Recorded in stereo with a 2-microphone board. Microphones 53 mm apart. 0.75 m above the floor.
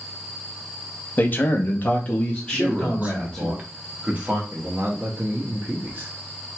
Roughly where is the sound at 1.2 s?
Left.